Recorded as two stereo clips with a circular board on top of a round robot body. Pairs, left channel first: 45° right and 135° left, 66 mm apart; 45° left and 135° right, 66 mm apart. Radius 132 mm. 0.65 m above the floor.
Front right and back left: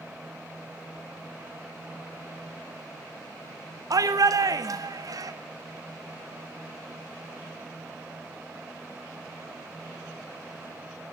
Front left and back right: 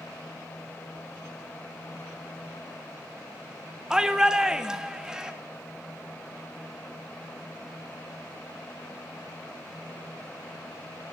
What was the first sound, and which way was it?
A shout, 145° left.